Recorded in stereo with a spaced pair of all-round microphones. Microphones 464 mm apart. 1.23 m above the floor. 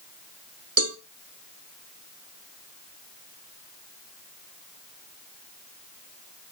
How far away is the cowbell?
About 0.8 m.